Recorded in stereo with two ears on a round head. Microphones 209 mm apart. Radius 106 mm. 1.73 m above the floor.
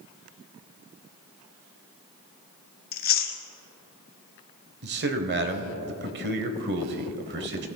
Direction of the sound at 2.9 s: 40° left (ahead or behind).